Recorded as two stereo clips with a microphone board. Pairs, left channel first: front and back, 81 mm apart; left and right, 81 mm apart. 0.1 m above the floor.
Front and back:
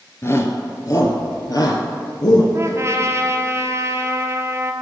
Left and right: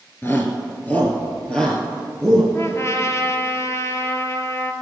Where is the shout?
45° left, 1.6 m; by 2.4 s 5° left, 2.5 m.